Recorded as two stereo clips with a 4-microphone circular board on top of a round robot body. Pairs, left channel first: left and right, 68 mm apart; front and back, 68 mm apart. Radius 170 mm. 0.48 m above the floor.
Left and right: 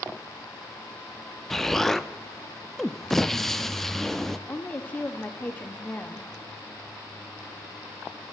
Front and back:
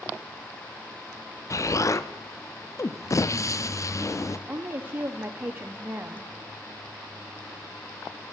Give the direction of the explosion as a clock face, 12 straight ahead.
12 o'clock.